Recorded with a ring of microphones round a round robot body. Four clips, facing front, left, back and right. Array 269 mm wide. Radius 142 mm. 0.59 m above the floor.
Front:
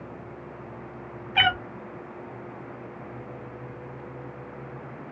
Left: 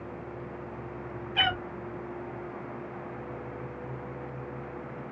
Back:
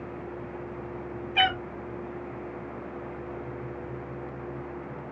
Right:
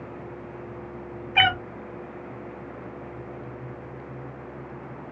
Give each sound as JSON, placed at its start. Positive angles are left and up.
{"t": 1.4, "sound": "a cat meowing", "azimuth_deg": -60, "distance_m": 1.0}